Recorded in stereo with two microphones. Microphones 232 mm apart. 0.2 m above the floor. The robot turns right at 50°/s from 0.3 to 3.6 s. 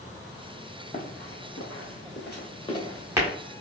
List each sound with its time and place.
0.9 s running footsteps: 35° left (ahead or behind), 1.4 m; by 3.3 s 20° right (ahead or behind), 2 m